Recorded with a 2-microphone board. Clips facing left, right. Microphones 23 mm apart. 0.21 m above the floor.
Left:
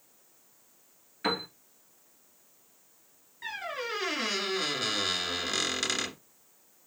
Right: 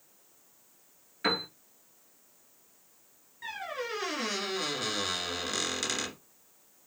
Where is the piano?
10° right (ahead or behind), 1.5 m.